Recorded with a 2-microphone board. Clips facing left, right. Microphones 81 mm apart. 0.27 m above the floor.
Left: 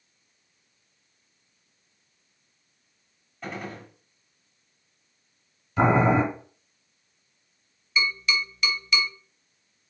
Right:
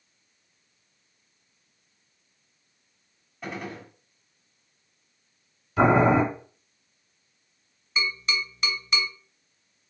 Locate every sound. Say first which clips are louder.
3.4 s a gunshot: even; 5° right (ahead or behind), 1.6 m
5.8 s boiling: right 1 dB; 5° right (ahead or behind), 2.5 m
8.0 s tapping: left 3 dB; 35° right (ahead or behind), 2.5 m